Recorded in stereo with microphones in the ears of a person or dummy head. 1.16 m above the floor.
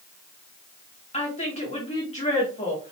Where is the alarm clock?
No alarm clock in this recording.